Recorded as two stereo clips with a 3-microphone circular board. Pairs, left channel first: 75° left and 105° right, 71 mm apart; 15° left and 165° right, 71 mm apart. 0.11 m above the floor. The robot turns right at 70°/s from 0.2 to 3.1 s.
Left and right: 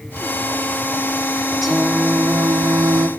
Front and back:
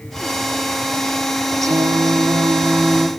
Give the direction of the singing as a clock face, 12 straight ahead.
6 o'clock.